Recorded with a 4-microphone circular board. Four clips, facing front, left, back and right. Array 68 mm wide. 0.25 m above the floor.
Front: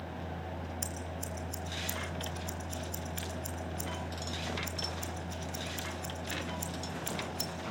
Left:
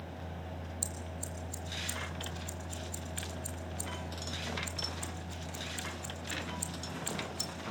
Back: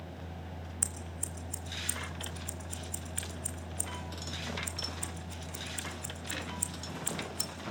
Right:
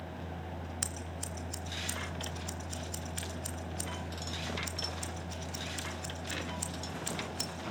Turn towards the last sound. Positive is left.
turn(degrees=-105)